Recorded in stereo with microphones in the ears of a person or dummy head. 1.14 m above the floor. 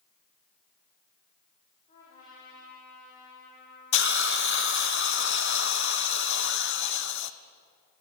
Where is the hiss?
65° left (ahead or behind), 0.7 m.